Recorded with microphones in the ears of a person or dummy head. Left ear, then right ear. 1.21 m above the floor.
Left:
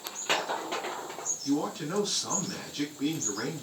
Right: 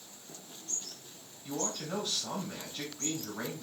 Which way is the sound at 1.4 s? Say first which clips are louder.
Left 3 dB; 10° left (ahead or behind).